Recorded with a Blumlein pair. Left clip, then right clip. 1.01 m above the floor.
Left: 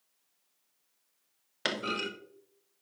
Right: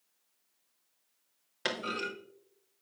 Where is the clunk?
10° left, 1.1 m.